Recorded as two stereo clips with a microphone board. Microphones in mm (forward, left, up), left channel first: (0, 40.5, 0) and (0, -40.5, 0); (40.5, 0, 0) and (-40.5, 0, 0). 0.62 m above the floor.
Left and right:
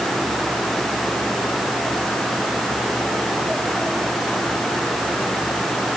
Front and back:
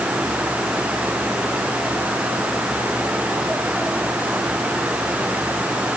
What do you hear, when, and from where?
Only background noise.